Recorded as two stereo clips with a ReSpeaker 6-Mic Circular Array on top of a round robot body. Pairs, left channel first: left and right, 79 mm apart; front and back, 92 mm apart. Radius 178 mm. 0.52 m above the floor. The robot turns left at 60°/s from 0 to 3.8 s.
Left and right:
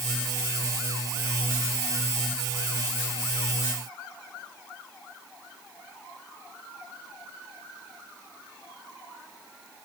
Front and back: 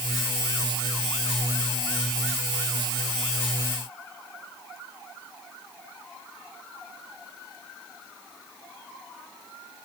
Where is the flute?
I don't hear a flute.